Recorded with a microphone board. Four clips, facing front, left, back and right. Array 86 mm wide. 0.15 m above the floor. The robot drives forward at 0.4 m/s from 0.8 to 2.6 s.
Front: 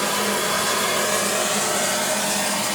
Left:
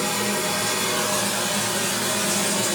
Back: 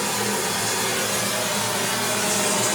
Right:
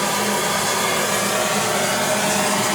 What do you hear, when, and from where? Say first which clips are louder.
0.0 s running water: right 4 dB, front 2 dB; 55° right, 1.1 m; by 2.8 s 95° right, 0.9 m